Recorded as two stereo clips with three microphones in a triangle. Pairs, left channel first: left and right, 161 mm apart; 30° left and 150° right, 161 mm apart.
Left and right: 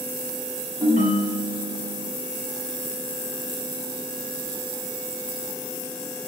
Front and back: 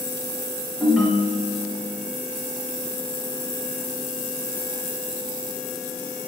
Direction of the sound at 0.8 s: 65° right.